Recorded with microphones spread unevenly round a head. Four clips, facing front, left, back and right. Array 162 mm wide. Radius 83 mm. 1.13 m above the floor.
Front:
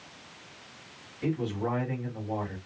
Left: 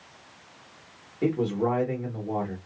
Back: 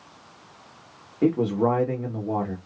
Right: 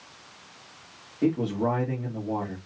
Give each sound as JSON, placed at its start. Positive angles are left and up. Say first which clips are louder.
{"t": 1.2, "sound": "a man speaking", "louder": "even, back 9 dB", "azimuth_deg": 180, "distance_m": 1.8}